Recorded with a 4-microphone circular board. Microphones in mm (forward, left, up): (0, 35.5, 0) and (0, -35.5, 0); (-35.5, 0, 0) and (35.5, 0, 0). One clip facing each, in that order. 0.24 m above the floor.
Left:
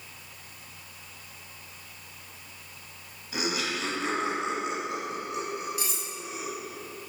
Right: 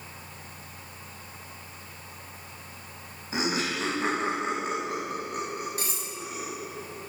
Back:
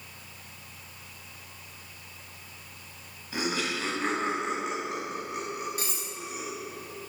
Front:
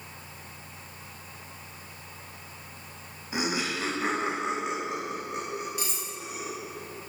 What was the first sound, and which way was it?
Laughter, 55° right.